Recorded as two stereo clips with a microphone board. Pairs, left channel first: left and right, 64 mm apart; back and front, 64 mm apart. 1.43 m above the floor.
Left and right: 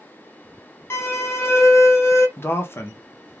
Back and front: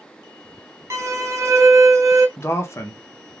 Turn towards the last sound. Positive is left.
turn(degrees=140)